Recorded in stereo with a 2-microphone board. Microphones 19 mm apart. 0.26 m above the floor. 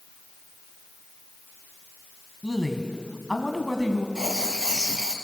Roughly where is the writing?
Right.